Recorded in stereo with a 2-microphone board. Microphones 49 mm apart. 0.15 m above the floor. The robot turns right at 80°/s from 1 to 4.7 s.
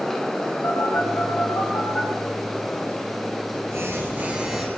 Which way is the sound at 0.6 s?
60° left (ahead or behind).